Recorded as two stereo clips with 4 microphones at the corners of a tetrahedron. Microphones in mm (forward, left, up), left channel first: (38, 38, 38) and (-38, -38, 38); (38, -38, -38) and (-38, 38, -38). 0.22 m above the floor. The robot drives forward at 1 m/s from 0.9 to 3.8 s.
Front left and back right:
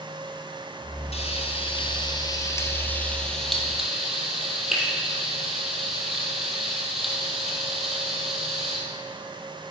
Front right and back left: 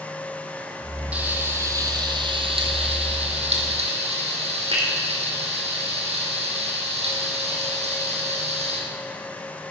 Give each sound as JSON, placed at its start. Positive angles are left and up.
{"t": 1.1, "sound": "frying", "azimuth_deg": 60, "distance_m": 1.9}